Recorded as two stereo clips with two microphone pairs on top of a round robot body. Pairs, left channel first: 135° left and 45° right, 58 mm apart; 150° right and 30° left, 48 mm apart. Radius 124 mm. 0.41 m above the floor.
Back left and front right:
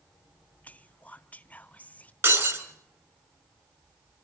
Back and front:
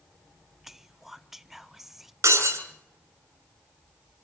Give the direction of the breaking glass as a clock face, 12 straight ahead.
12 o'clock.